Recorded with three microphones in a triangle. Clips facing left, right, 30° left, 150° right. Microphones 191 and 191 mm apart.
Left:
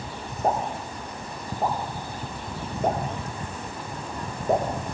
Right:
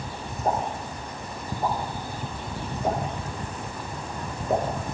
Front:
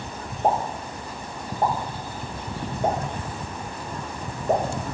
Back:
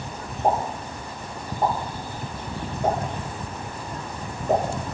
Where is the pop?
100° left, 7.5 m.